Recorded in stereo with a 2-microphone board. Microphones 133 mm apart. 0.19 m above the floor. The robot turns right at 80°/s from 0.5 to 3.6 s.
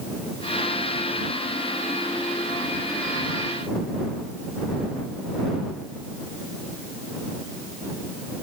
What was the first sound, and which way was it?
Only background noise.